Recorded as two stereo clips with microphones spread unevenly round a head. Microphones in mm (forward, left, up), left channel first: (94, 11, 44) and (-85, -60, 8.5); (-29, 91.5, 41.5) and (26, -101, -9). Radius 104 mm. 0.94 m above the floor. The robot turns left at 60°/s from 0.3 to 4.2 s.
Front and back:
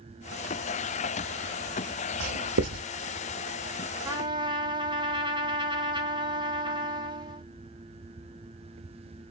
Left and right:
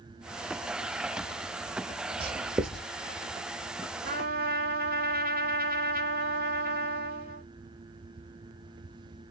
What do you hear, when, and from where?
2.2 s writing: 145° right, 0.9 m; by 2.9 s 175° left, 0.9 m
4.0 s a trumpet: 90° right, 1.2 m; by 7.5 s 100° right, 1.2 m